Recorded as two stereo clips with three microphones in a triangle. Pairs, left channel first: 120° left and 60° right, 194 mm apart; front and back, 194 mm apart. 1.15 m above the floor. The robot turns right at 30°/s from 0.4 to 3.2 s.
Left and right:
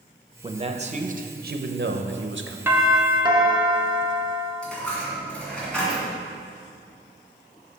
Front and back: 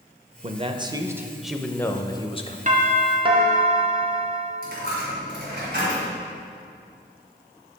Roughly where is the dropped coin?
Behind right.